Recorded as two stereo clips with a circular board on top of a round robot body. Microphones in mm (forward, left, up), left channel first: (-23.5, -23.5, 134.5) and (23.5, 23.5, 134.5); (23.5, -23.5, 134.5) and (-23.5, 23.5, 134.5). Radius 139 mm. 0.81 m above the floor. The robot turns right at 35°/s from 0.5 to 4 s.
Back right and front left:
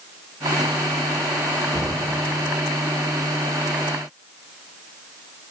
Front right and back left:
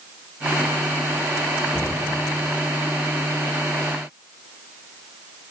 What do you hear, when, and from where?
1.7 s a cupboard door: 50° left, 0.7 m; by 1.9 s 60° left, 0.7 m